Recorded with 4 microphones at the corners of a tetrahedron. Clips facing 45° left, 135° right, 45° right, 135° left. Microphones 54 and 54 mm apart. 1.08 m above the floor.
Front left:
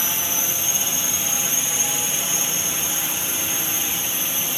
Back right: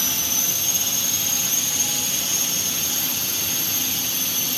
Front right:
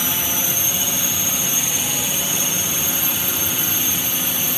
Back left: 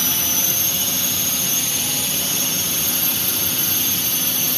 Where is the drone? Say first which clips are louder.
Front left 1 dB, front right 1 dB; 10° left.